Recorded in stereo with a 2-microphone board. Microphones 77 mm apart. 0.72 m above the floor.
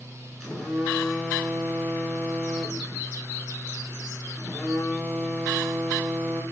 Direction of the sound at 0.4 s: 5° right (ahead or behind).